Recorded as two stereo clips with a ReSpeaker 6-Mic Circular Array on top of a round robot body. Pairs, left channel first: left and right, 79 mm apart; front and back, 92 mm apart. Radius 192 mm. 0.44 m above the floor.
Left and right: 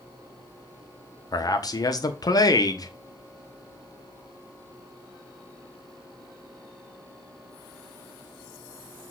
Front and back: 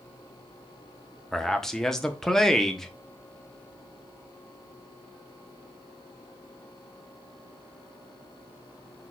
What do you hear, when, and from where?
1.3 s a man speaking: 85° left, 1.2 m